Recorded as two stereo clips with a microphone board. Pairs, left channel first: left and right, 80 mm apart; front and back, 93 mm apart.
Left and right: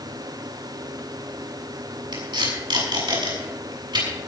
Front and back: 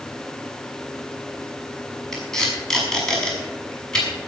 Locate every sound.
2.1 s tape being pulled: 85° right, 6.5 m